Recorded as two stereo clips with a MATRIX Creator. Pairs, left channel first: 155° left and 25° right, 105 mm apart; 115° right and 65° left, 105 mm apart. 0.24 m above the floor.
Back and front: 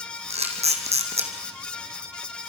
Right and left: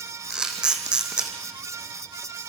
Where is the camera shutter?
15° right, 2.5 m.